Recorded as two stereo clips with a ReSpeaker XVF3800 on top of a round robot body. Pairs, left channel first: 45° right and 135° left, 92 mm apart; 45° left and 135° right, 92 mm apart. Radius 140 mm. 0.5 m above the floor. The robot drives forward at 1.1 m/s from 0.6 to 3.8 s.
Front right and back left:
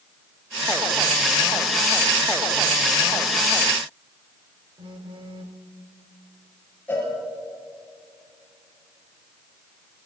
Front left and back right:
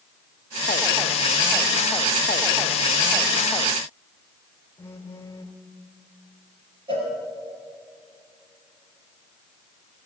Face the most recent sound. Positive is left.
turn(degrees=-115)